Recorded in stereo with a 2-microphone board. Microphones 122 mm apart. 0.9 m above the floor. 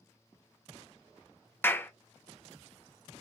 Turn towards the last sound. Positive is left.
turn(degrees=15)  # may be behind; listen again after turning